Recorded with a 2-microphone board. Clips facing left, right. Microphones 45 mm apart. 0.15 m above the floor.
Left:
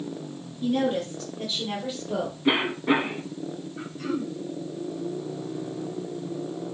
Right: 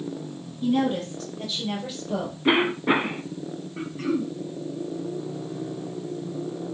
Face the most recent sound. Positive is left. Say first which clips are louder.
# right 4 dB
turn(degrees=-50)  # may be behind; listen again after turning